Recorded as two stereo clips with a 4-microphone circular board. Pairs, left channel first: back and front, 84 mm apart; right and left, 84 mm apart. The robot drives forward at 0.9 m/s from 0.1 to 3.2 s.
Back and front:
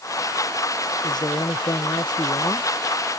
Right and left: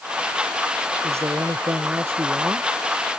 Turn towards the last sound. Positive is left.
turn(degrees=150)